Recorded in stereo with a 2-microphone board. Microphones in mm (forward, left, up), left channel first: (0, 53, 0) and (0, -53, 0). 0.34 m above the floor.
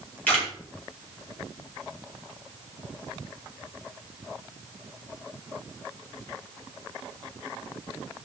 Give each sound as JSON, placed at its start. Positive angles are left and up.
{"t": 0.3, "sound": "a camera shutter", "side_deg": 15, "distance_m": 7.5}